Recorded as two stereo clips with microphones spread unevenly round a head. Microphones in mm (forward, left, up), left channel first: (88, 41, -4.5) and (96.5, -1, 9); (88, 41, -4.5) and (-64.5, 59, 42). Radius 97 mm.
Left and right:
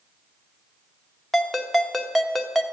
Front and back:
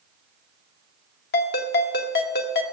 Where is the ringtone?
10° left, 1.2 m.